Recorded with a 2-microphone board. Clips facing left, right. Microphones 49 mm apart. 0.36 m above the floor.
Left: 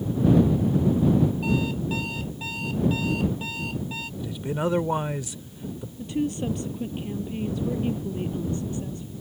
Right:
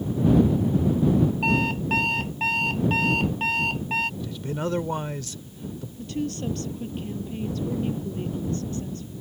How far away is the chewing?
I don't hear chewing.